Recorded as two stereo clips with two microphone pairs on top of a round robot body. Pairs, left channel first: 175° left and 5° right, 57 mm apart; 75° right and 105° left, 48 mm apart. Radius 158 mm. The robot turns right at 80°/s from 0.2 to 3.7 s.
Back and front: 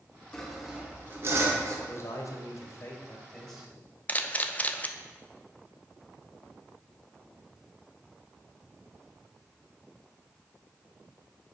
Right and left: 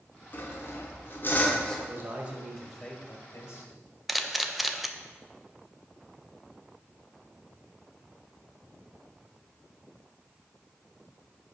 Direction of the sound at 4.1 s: 175° right.